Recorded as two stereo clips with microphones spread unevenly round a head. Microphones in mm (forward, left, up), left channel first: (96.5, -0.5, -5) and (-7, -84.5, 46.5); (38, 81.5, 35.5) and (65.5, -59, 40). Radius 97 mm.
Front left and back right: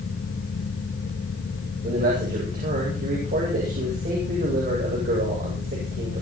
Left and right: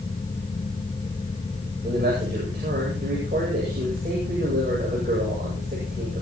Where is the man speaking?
130° right, 9.5 m.